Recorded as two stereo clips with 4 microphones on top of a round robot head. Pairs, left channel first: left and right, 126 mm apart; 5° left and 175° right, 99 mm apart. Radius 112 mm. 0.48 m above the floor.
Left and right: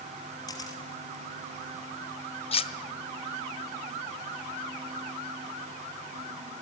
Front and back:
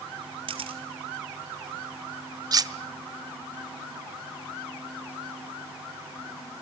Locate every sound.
0.5 s a camera shutter: 155° left, 3 m
2.5 s cutlery clinking: 135° left, 1.4 m